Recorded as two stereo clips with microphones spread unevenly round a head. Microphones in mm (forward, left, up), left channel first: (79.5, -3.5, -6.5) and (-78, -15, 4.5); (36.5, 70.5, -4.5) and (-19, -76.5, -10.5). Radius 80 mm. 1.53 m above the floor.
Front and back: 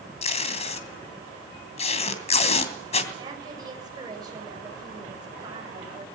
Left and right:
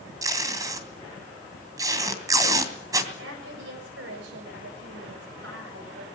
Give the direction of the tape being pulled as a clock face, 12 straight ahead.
1 o'clock.